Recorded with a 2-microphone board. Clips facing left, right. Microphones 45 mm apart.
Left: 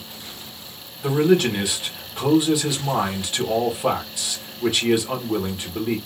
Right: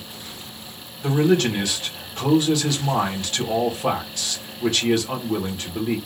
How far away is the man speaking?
About 1.2 m.